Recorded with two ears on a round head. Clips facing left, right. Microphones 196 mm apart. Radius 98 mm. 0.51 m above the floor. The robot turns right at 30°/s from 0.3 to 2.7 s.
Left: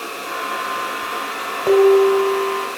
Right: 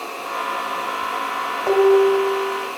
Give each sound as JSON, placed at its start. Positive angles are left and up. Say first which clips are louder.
{"t": 1.7, "sound": "dishes clattering", "louder": "left 2 dB", "side_deg": 30, "distance_m": 2.5}